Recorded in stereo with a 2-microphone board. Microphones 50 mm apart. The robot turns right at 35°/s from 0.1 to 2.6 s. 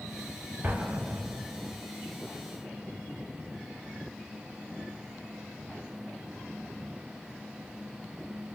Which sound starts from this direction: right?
An explosion, at 0.6 s.